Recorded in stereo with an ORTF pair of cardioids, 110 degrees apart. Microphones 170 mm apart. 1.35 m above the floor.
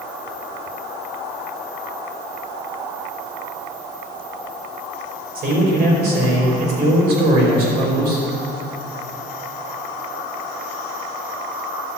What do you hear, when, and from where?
5.3 s a man speaking: 70° right, 4.5 m